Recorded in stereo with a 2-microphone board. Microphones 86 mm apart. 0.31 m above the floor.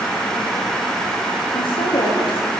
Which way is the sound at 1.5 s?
85° left.